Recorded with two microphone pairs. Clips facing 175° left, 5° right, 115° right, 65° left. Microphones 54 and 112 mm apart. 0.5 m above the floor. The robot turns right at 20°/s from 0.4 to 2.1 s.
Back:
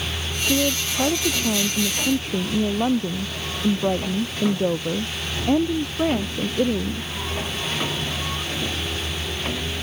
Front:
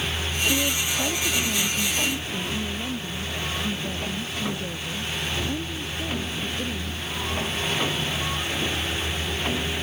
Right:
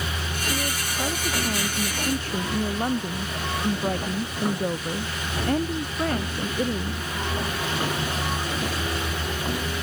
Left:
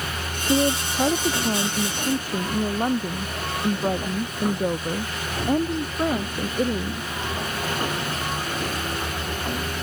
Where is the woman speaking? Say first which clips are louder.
Back 6 dB, left 11 dB; 110° left; by 7.1 s 145° left.